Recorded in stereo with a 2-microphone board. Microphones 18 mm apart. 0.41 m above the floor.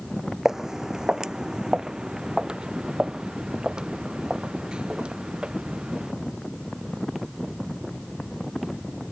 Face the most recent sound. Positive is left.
turn(degrees=-55)  # may be behind; listen again after turning